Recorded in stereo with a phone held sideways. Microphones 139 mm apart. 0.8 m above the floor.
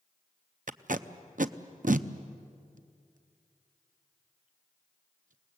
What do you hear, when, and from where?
0.7 s tape being pulled: 70° right (ahead or behind), 0.6 m